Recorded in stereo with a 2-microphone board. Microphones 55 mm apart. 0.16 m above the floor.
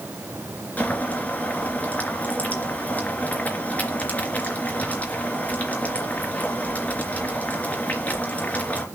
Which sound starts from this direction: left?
Boiling, at 0.8 s.